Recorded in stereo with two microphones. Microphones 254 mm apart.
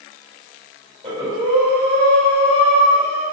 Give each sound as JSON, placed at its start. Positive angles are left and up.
{"t": 1.0, "sound": "breathing", "side_deg": -25, "distance_m": 4.0}